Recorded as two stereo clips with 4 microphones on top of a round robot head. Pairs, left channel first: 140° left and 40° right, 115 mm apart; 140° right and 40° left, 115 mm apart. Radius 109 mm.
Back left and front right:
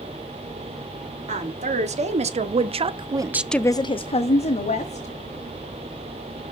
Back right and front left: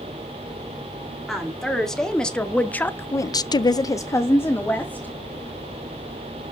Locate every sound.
1.3 s a woman speaking: 50° right, 2.5 m; by 5.1 s 145° left, 1.9 m